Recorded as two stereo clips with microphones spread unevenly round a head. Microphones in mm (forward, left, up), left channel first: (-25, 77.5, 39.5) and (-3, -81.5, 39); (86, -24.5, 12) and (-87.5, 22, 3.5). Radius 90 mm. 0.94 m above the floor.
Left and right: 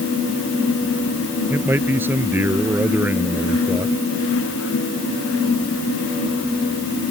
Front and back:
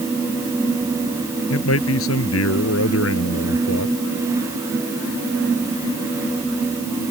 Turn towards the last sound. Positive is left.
turn(degrees=0)